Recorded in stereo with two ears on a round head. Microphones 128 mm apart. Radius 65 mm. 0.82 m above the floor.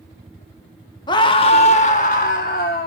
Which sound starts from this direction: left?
A scream, at 1.1 s.